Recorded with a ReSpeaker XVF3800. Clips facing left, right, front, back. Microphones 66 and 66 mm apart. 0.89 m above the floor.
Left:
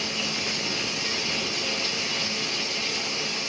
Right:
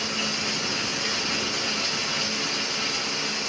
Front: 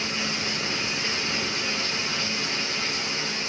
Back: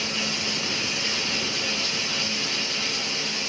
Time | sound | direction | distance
0.0 | running water | 60° right | 7.5 m